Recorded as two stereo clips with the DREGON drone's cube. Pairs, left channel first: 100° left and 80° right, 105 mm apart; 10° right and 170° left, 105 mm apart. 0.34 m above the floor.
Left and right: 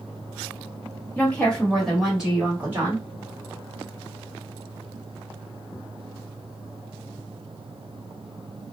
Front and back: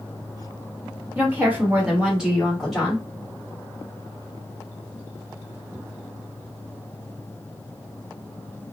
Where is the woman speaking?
135° left, 1.4 m; by 3.1 s 95° right, 1.4 m.